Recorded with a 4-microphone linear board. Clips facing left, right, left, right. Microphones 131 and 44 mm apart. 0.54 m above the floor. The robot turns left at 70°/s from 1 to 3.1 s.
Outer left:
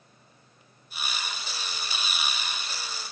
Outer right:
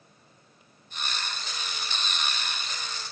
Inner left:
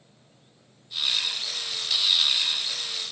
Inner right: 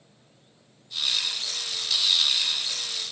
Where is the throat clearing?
No throat clearing in this recording.